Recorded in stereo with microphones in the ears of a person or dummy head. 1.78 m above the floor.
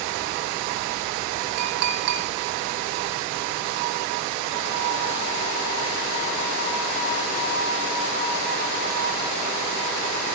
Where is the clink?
55° right (ahead or behind), 1.6 m.